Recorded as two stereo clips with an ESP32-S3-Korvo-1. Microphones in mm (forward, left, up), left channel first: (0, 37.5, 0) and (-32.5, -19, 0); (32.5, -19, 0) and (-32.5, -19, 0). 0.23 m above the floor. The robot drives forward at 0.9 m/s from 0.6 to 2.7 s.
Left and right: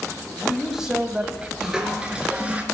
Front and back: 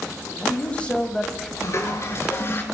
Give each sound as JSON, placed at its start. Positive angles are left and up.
{"t": 0.2, "sound": "a man speaking", "azimuth_deg": -35, "distance_m": 1.8}
{"t": 1.6, "sound": "a toilet flushing", "azimuth_deg": -40, "distance_m": 3.5}